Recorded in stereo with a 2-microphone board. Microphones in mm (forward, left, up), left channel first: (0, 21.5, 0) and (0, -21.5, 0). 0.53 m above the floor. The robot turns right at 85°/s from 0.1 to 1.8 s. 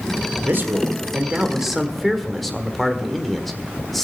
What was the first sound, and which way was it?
A man speaking, 115° right.